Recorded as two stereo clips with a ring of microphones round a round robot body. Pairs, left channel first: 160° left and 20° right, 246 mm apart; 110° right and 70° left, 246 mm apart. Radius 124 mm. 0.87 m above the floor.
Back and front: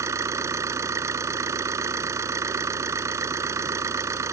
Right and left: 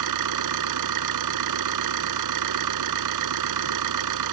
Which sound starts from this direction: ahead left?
An engine running, at 0.0 s.